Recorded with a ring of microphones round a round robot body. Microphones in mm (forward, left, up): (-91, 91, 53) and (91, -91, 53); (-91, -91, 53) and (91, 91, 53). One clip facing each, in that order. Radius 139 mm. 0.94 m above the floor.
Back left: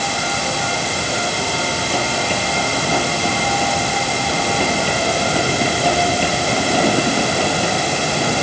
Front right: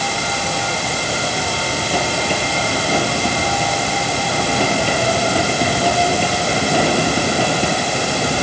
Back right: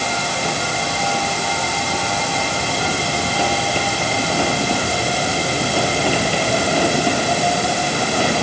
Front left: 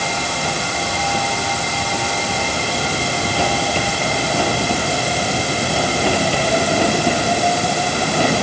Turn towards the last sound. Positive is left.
No sound to turn to.